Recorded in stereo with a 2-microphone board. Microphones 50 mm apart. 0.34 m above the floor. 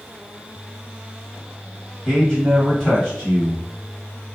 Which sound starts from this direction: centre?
A man speaking, at 2.0 s.